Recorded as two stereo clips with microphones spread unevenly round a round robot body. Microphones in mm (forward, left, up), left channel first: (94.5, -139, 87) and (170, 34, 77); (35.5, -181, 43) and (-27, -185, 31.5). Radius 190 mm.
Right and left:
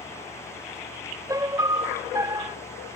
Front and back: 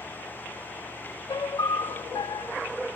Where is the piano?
10° right.